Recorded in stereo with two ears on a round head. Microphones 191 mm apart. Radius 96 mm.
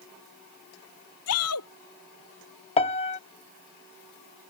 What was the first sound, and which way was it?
A shout, 85° left.